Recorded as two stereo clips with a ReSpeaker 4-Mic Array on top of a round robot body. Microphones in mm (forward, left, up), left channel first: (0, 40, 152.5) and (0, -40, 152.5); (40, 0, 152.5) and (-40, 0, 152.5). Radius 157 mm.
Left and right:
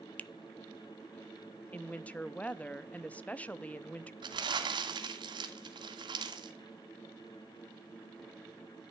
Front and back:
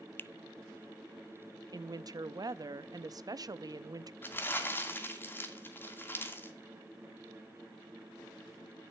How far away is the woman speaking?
About 0.8 m.